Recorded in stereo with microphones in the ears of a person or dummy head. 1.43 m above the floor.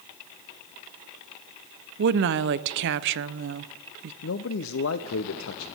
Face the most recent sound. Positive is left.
turn(degrees=65)  # may be behind; listen again after turning